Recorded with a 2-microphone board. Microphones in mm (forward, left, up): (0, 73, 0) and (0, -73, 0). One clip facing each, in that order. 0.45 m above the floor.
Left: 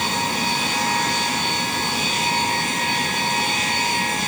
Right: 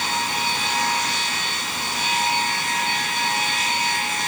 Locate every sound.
Only background noise.